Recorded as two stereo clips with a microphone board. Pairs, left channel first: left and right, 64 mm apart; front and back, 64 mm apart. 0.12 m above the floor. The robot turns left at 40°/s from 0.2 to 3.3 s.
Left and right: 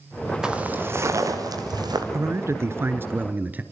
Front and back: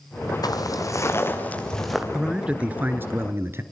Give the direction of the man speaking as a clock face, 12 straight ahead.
3 o'clock.